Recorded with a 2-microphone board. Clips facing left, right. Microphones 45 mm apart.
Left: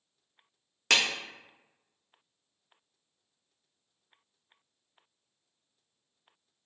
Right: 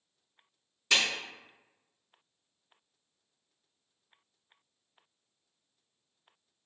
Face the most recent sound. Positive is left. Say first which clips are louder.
# left 2 dB
turn(degrees=75)  # may be behind; listen again after turning